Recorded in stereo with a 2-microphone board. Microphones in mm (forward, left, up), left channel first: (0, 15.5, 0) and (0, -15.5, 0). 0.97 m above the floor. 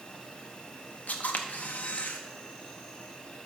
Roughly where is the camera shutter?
Left.